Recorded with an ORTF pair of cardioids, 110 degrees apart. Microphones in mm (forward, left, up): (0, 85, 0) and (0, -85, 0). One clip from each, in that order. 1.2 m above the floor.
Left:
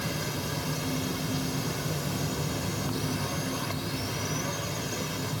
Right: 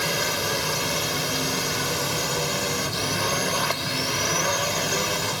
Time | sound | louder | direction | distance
0.0 | a drone | right 9 dB | 70° right | ?